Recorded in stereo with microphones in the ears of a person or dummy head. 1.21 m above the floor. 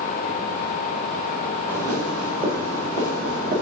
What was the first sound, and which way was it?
Footsteps, 10° right (ahead or behind).